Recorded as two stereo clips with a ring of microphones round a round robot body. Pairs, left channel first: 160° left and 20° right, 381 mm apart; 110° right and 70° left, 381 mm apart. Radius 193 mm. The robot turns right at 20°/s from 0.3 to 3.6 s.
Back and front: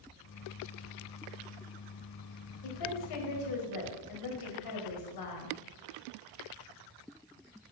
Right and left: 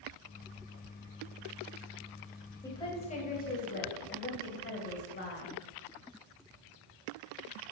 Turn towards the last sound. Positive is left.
turn(degrees=-175)